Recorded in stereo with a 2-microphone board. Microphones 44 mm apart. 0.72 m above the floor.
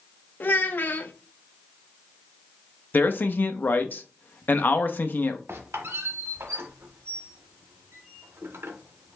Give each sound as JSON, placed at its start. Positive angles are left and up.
{"t": 0.4, "sound": "a child speaking", "side_deg": 45, "distance_m": 0.7}
{"t": 2.9, "sound": "a man speaking", "side_deg": 45, "distance_m": 0.7}
{"t": 5.5, "sound": "a squeak", "side_deg": -70, "distance_m": 1.1}